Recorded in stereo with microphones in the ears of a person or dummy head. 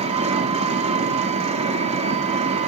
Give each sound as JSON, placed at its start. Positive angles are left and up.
{"t": 0.0, "sound": "an engine running", "side_deg": -30, "distance_m": 1.6}